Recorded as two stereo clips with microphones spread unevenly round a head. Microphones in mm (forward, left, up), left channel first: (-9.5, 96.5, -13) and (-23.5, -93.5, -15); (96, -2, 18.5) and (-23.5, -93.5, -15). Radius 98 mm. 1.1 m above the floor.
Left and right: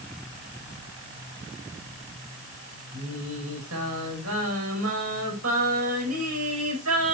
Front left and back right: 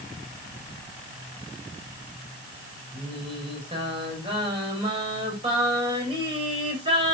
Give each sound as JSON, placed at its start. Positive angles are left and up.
{"t": 2.9, "sound": "singing", "azimuth_deg": -85, "distance_m": 4.0}